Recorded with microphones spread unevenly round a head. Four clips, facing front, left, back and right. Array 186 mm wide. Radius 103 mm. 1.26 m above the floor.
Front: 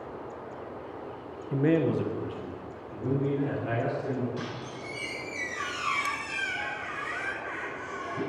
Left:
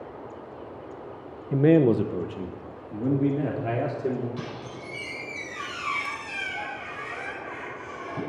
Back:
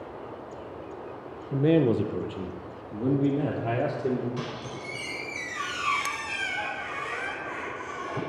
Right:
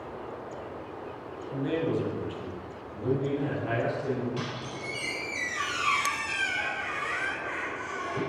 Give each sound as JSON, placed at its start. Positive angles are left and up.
{"t": 1.5, "sound": "a man speaking", "azimuth_deg": 80, "distance_m": 0.7}
{"t": 4.4, "sound": "a squeak", "azimuth_deg": -150, "distance_m": 6.0}